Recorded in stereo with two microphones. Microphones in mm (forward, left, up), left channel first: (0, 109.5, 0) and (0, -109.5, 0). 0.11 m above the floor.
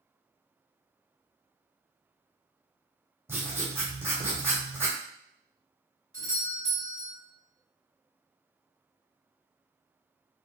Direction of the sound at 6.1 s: 15° left (ahead or behind).